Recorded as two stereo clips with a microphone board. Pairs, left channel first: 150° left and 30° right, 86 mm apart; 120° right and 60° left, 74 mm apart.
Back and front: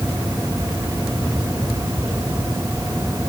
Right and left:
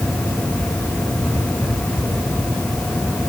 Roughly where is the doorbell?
No doorbell in this recording.